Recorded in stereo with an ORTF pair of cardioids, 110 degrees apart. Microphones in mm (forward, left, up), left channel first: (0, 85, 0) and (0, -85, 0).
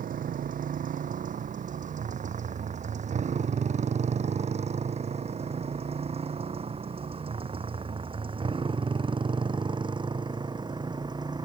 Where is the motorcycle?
55° right; by 11.4 s 25° right.